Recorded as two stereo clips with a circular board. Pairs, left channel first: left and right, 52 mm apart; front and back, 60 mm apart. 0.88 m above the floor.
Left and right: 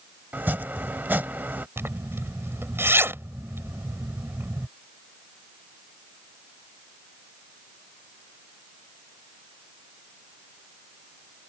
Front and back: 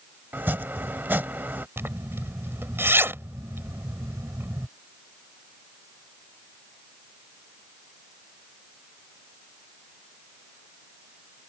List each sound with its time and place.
0.3 s chopping: 135° right
1.8 s a zipper: 130° right